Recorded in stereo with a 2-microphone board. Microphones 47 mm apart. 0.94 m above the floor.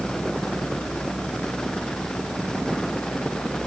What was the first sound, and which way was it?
Only background noise.